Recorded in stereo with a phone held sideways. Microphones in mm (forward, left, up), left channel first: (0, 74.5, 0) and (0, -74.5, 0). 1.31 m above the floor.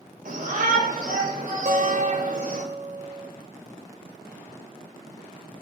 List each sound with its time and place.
0.2 s a shout: 75° right (ahead or behind), 5.5 m
1.6 s a guitar: 60° right (ahead or behind), 1.0 m